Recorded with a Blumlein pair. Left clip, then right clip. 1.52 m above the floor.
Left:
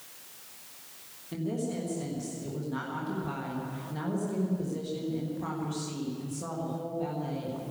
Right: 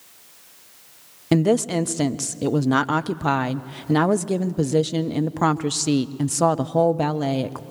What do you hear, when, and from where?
1.3 s a woman speaking: 45° right, 0.8 m